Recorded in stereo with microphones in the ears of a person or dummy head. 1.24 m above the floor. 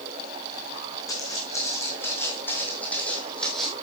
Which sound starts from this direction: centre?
Footsteps, at 1.1 s.